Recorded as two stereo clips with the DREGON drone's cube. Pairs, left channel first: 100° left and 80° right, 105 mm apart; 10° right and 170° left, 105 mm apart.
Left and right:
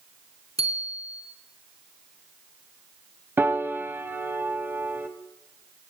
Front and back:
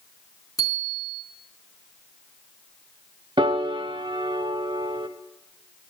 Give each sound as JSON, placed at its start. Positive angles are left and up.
{"t": 0.6, "sound": "a bicycle bell", "azimuth_deg": -65, "distance_m": 3.0}
{"t": 3.4, "sound": "a piano", "azimuth_deg": -145, "distance_m": 0.8}